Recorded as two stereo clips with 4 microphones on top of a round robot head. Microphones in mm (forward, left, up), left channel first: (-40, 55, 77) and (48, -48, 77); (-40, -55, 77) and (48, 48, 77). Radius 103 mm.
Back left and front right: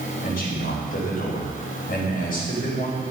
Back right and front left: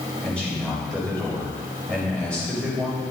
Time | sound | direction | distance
0.2 | a man speaking | 145° left | 7 m